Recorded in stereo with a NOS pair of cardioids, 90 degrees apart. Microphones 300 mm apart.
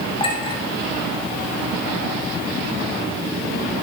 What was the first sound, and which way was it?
A clink, 20° left.